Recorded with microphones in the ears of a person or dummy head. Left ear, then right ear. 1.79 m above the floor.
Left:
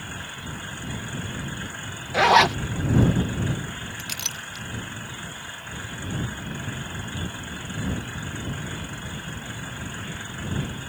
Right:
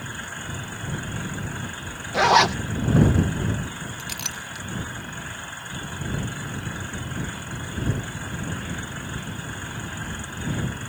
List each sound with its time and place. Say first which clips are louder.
2.1 s a zipper: left 1 dB; 15° left (ahead or behind)
4.0 s a clink: left 1 dB; centre (ahead or behind)